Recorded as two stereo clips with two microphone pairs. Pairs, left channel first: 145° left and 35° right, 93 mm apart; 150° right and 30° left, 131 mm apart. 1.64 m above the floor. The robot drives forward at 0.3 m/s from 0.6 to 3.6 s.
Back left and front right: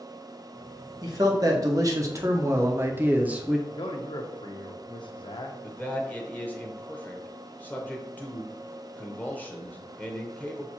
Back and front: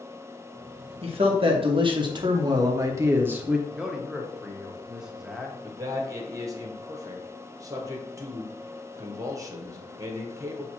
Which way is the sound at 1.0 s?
Straight ahead.